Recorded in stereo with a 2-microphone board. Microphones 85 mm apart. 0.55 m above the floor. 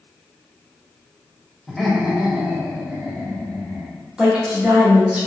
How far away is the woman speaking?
About 1.2 m.